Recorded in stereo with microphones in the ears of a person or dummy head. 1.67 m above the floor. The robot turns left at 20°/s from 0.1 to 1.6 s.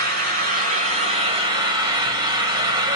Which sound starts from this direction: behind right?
An engine running, at 0.0 s.